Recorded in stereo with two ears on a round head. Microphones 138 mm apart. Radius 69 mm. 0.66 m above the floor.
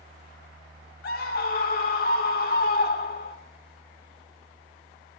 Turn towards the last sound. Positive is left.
turn(degrees=60)  # may be behind; listen again after turning